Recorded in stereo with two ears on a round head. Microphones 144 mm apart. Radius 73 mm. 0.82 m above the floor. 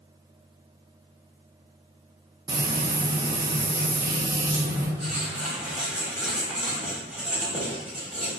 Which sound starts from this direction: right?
Frying, at 2.5 s.